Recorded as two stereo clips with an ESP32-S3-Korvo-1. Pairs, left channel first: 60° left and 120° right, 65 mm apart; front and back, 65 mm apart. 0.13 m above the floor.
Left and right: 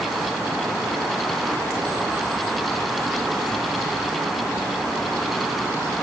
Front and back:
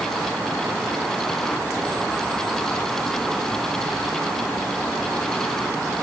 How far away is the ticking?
I don't hear ticking.